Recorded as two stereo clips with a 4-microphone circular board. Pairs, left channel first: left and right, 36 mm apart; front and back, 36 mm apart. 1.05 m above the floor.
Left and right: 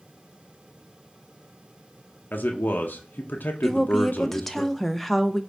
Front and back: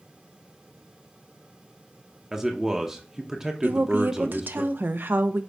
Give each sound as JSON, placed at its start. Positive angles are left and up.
{"t": 2.3, "sound": "a man speaking", "azimuth_deg": 105, "distance_m": 0.7}
{"t": 3.6, "sound": "a woman speaking", "azimuth_deg": 170, "distance_m": 0.5}